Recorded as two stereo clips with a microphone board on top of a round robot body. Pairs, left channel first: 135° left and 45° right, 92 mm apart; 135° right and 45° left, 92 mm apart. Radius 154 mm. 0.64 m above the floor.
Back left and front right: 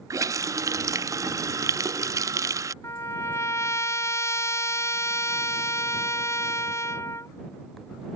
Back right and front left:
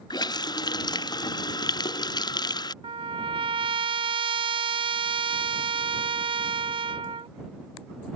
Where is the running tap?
95° right.